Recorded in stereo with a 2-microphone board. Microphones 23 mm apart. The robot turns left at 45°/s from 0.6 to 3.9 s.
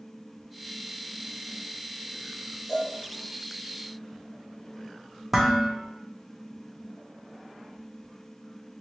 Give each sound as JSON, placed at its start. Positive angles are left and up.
{"t": 2.7, "sound": "a cowbell", "side_deg": 30, "distance_m": 1.2}
{"t": 5.3, "sound": "dishes clattering", "side_deg": -15, "distance_m": 0.7}